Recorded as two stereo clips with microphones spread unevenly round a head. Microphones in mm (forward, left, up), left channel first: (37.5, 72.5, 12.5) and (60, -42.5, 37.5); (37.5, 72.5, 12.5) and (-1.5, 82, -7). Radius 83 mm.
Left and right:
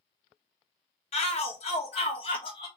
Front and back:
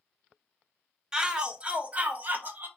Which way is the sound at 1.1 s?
105° left.